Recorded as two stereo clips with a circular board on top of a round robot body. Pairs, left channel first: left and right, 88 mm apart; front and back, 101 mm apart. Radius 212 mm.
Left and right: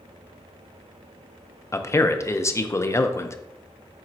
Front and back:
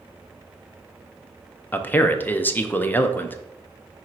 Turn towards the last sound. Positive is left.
turn(degrees=60)